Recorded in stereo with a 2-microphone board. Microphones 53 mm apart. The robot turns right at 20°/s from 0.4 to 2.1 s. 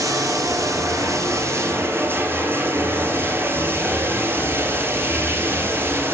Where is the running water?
80° right, 2.5 m; by 6.2 s 45° right, 2.5 m.